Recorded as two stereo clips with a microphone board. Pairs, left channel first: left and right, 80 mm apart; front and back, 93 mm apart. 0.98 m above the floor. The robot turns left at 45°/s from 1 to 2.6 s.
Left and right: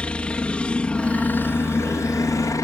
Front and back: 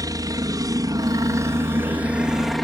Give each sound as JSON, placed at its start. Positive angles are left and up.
{"t": 0.0, "sound": "a helicopter", "azimuth_deg": 160}